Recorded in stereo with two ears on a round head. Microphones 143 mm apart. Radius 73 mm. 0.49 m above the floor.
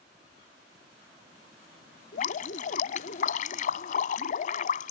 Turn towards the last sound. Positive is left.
turn(degrees=55)  # may be behind; listen again after turning